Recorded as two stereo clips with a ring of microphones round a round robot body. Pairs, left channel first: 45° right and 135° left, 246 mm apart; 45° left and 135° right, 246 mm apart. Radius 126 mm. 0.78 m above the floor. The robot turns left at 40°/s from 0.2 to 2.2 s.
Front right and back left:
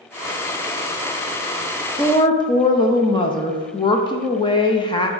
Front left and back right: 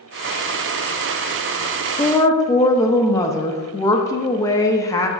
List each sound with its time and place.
2.0 s a woman speaking: straight ahead, 0.6 m; by 5.1 s 10° right, 0.6 m